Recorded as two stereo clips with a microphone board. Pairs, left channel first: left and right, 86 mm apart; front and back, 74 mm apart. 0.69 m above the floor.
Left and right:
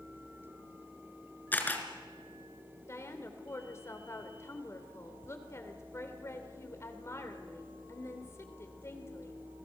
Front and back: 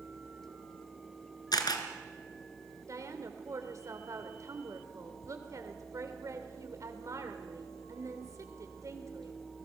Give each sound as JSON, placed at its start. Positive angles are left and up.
{"t": 1.5, "sound": "a camera shutter", "azimuth_deg": 20, "distance_m": 2.5}
{"t": 2.9, "sound": "a woman speaking", "azimuth_deg": 145, "distance_m": 3.0}